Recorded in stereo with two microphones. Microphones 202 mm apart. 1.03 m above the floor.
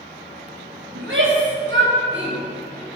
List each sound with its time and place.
0.9 s a shout: 85° right, 5.5 m